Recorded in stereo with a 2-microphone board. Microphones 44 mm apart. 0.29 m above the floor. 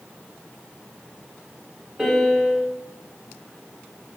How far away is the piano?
About 0.9 m.